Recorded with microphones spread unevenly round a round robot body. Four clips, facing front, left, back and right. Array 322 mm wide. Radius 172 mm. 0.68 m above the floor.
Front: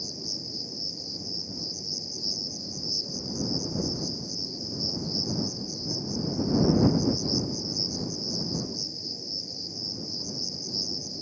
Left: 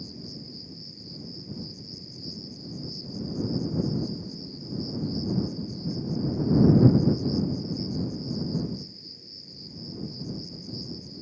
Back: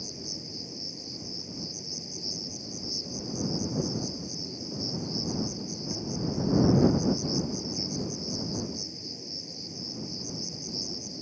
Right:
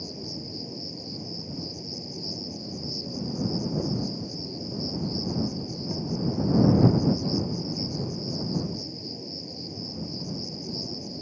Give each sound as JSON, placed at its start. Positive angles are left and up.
{"t": 0.0, "sound": "an insect", "azimuth_deg": -90}